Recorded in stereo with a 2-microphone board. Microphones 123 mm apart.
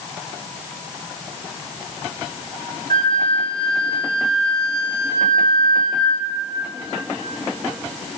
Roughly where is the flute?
Right.